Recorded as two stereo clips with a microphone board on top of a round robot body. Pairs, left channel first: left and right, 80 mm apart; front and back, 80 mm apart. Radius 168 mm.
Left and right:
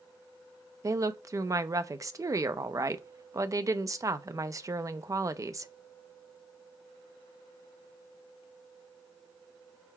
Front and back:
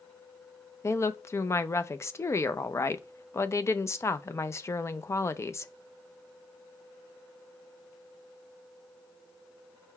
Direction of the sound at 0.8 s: 50° right.